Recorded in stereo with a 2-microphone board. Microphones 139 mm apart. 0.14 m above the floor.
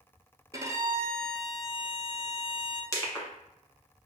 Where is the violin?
25° right (ahead or behind), 0.7 m.